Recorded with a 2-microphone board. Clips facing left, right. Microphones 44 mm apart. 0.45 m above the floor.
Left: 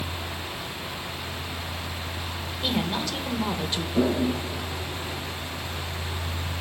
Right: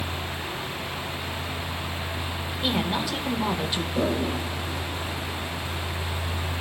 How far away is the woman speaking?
About 1.8 m.